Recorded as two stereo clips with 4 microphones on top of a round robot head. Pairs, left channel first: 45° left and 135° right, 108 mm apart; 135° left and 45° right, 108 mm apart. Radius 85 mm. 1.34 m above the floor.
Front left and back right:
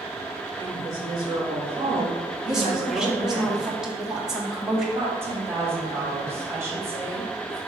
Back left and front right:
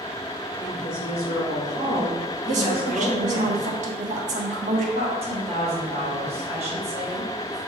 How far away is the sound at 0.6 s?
About 2.5 m.